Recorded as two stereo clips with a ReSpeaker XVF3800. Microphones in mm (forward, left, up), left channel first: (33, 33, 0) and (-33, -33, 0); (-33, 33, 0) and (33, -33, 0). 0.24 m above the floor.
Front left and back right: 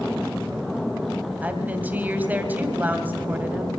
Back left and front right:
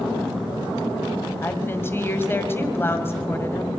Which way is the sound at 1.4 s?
175° left.